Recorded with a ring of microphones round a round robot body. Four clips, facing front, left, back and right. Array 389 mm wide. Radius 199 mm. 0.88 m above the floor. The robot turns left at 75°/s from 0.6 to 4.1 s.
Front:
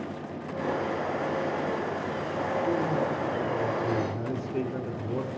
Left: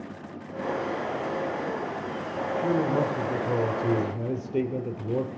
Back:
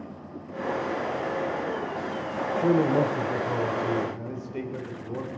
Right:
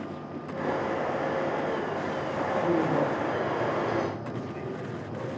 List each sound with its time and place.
2.5 s a man speaking: straight behind, 2.5 m; by 5.3 s 65° left, 2.5 m